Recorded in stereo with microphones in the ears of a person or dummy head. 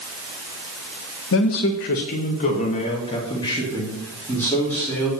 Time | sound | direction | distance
1.3 | a man speaking | 65° left (ahead or behind) | 1.6 m